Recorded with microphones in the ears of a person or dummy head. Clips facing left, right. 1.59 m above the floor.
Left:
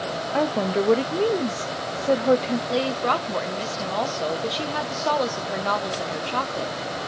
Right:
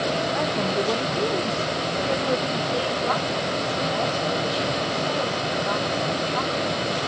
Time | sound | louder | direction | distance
0.3 | a woman speaking | left 2 dB | 45° left (ahead or behind) | 0.7 m
2.7 | a woman speaking | left 2 dB | 65° left (ahead or behind) | 1.1 m